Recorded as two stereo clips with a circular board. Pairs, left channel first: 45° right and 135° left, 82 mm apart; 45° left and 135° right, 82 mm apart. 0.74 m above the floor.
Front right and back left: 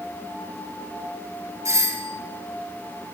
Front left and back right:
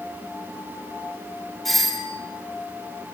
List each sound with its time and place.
1.6 s a doorbell: 130° left, 1.9 m